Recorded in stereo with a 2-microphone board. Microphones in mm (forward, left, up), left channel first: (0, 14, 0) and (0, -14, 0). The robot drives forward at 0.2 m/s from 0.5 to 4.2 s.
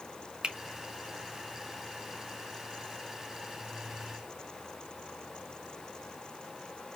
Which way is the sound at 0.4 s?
30° right (ahead or behind).